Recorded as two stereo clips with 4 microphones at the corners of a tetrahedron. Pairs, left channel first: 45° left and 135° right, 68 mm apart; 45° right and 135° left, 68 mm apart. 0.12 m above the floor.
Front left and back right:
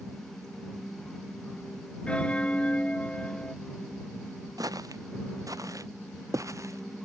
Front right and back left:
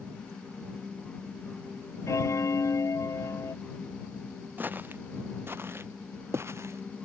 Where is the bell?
25° right.